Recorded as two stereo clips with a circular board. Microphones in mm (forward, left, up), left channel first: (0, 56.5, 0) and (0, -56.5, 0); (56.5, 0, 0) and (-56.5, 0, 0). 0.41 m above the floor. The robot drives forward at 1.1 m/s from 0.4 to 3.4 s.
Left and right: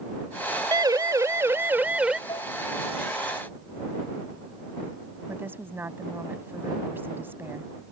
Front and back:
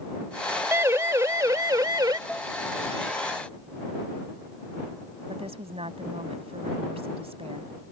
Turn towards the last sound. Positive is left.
turn(degrees=-160)